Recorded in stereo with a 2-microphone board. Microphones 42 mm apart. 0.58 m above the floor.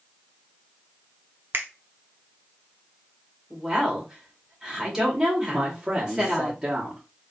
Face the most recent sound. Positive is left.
turn(degrees=-15)  # may be behind; listen again after turning